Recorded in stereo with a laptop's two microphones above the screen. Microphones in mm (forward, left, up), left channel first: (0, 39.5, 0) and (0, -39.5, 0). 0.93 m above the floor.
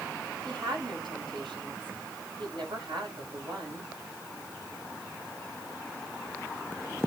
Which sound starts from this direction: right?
A woman speaking, at 0.5 s.